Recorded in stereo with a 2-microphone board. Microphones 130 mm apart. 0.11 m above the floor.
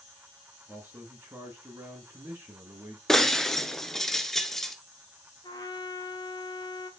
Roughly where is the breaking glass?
Centre.